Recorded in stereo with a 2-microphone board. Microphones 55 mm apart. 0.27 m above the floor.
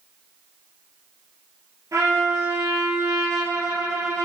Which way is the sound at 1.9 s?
80° right.